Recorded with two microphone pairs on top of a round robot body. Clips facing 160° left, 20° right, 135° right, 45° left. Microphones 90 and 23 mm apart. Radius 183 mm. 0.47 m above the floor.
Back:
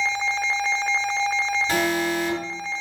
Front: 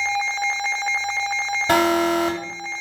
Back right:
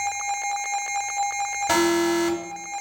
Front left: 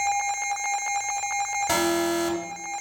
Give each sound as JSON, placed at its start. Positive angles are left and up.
{"t": 1.7, "sound": "an alarm", "azimuth_deg": -55, "distance_m": 2.5}